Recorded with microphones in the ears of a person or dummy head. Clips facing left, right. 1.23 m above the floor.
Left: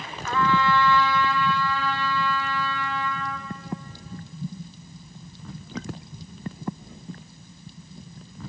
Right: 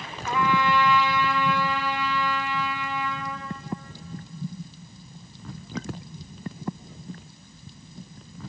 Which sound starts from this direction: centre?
A trumpet, at 0.3 s.